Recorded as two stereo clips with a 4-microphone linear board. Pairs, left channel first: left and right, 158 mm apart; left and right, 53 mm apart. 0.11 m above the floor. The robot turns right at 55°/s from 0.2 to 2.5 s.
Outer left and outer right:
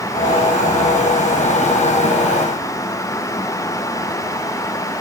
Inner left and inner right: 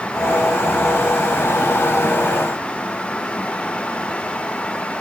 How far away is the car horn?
No car horn in this recording.